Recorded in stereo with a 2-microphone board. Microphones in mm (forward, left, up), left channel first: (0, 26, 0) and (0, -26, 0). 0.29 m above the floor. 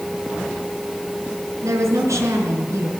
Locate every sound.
1.6 s a woman speaking: 70° right (ahead or behind), 4.5 m